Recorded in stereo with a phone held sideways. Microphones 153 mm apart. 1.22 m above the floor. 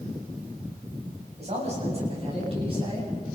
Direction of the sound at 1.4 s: 45° right (ahead or behind).